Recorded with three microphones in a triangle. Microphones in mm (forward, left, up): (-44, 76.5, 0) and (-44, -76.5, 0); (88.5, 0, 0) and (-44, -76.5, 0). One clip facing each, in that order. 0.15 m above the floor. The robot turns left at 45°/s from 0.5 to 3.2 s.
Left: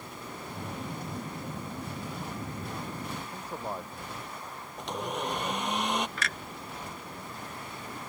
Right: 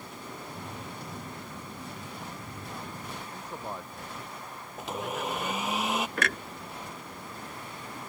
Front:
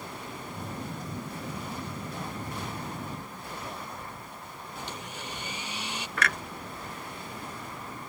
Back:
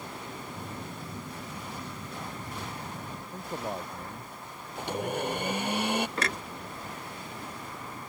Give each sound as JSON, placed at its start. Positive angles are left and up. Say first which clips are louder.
{"t": 3.3, "sound": "a man speaking", "louder": "even, back 5 dB", "azimuth_deg": 170}
{"t": 4.8, "sound": "a blender", "louder": "even, back 11 dB", "azimuth_deg": -175}
{"t": 6.2, "sound": "a clunk", "louder": "right 6 dB, even", "azimuth_deg": -95}